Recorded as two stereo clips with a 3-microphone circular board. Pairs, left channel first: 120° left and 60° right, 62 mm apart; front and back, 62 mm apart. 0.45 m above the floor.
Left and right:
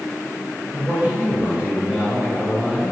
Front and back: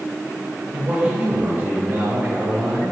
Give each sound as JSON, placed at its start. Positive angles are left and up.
{"t": 0.7, "sound": "a man speaking", "azimuth_deg": -115, "distance_m": 2.0}